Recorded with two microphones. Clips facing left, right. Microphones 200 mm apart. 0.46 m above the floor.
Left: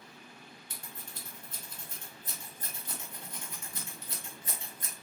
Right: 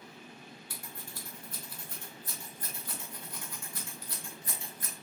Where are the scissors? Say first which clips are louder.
Right 2 dB; 25° left (ahead or behind), 1.1 m.